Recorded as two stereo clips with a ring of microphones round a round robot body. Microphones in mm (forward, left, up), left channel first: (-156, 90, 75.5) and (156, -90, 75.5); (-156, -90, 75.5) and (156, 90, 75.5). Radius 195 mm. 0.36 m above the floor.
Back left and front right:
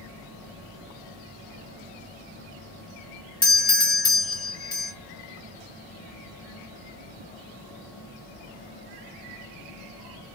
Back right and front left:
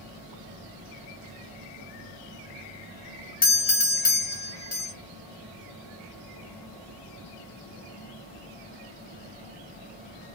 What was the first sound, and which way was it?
A doorbell, 150° right.